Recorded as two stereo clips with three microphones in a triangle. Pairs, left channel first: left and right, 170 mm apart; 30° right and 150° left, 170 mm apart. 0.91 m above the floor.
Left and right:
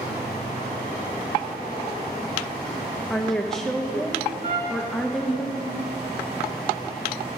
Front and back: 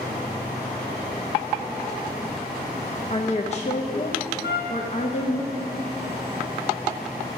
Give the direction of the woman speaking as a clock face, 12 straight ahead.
12 o'clock.